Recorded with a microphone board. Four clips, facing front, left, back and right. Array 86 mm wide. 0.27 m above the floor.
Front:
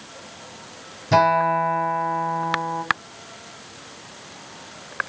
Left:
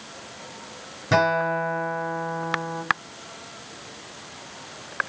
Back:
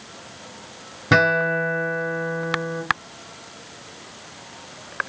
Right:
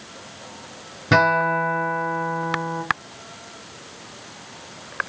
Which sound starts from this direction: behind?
A guitar, at 1.1 s.